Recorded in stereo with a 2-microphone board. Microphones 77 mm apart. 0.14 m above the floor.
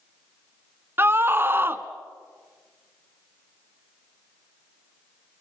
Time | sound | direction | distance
1.0 | a scream | 30° right (ahead or behind) | 1.1 m